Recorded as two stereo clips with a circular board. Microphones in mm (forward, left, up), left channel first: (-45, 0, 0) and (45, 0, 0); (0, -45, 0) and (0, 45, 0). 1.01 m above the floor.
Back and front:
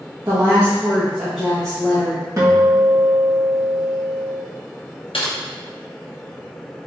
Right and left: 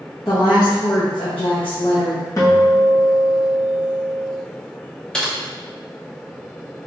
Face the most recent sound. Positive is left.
turn(degrees=-175)